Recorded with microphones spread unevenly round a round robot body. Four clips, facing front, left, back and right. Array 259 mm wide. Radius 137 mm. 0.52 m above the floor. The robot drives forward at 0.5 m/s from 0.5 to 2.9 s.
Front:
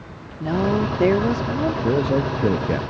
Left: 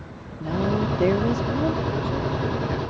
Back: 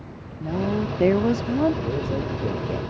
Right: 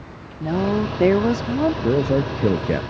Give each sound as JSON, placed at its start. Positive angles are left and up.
{"t": 0.4, "sound": "a woman speaking", "azimuth_deg": -40}
{"t": 1.8, "sound": "a man speaking", "azimuth_deg": -50}